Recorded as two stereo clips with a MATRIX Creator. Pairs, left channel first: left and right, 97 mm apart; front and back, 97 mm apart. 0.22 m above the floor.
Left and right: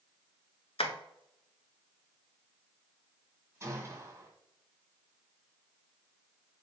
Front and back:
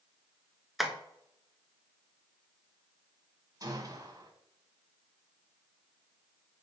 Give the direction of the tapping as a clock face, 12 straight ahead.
9 o'clock.